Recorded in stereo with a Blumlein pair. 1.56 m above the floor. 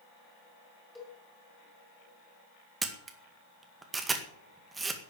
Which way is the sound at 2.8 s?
15° right.